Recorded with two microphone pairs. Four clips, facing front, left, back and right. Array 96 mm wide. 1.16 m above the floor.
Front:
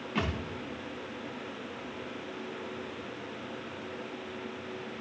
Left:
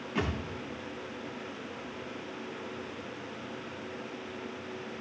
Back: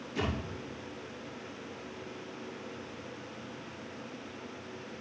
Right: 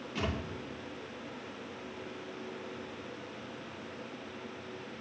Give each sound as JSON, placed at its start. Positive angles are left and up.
{"t": 0.1, "sound": "a thud", "azimuth_deg": 30, "distance_m": 4.0}